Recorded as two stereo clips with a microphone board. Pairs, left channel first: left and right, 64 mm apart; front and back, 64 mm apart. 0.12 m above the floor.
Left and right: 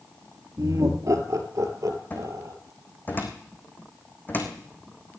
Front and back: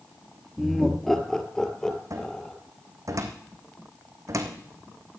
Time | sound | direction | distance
0.6 | laughter | 85° right | 2.5 m
2.1 | a cupboard door | 150° left | 2.5 m